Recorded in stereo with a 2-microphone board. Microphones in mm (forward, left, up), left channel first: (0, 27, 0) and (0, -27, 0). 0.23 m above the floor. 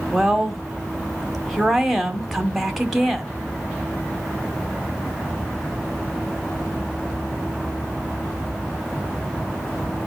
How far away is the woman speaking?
About 1.6 m.